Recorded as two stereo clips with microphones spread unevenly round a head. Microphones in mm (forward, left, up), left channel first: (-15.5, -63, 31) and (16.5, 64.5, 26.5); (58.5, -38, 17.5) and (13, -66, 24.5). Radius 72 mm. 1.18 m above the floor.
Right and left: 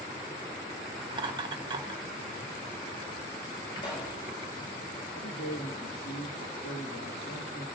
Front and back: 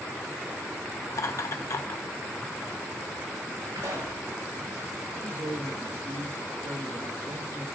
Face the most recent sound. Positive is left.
turn(degrees=-115)